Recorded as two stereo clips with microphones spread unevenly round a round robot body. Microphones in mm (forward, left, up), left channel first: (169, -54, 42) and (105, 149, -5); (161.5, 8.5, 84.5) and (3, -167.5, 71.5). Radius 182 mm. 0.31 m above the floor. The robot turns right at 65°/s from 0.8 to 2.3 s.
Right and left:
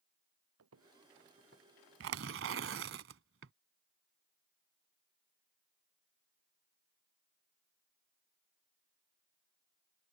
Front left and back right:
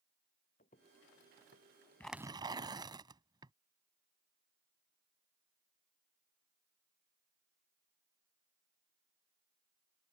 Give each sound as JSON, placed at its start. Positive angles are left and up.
{"t": 0.6, "sound": "footsteps", "azimuth_deg": 115}
{"t": 2.0, "sound": "tearing paper", "azimuth_deg": 130}